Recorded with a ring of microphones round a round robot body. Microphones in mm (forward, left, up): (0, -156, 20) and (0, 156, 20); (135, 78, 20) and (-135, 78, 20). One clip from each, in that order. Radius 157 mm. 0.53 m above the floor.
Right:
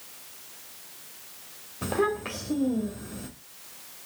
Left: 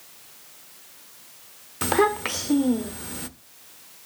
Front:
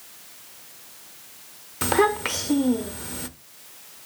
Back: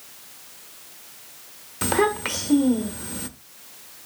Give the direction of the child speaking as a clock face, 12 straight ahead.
9 o'clock.